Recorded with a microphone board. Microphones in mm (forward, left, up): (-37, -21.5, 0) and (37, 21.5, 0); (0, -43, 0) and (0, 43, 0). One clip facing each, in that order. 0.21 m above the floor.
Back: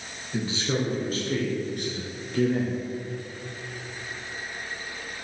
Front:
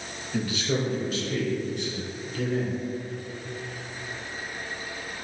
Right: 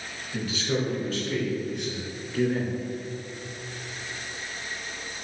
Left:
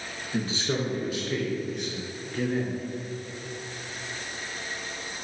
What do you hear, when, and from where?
0.3 s a man speaking: 145° left, 3 m; by 2.8 s 165° right, 4.5 m